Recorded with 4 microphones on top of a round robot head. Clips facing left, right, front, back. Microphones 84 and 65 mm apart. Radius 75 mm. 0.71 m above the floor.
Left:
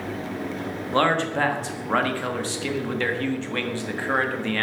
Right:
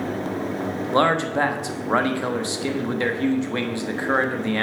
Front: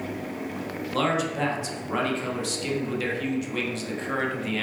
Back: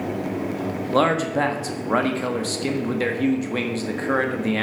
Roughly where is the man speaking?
Behind.